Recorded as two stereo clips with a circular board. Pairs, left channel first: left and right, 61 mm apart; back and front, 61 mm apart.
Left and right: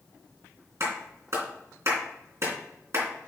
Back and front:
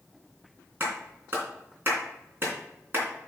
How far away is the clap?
About 3 m.